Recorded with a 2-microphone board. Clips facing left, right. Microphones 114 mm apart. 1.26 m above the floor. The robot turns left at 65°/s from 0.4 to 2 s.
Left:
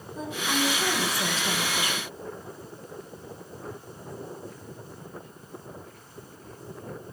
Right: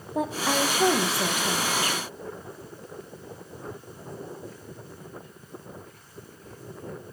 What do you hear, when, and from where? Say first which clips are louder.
0.1 s a woman speaking: right 4 dB; 105° right, 1.2 m; by 2.1 s 150° left, 1.2 m